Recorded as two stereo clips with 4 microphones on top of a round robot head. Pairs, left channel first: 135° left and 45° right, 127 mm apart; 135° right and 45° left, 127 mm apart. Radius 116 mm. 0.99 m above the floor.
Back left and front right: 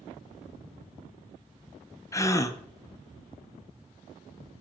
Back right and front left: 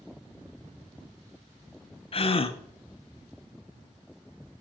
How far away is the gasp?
About 0.7 m.